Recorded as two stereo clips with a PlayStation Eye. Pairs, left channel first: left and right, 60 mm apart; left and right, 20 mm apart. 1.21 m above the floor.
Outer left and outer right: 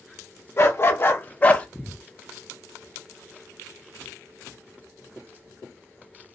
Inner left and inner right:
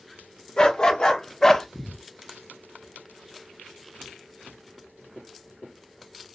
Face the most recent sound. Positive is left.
turn(degrees=20)  # may be behind; listen again after turning